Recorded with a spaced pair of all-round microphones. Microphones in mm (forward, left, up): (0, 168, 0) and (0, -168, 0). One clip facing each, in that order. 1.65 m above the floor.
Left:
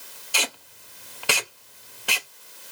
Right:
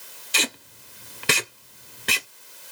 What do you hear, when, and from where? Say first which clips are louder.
0.3 s tape being pulled: right 3 dB; 30° right (ahead or behind), 0.7 m